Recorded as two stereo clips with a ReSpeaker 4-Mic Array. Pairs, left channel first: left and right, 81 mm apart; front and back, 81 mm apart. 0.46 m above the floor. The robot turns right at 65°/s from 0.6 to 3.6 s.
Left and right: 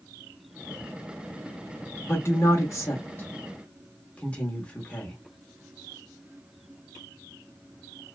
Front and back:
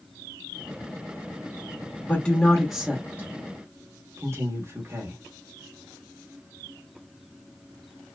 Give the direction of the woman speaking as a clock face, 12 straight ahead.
10 o'clock.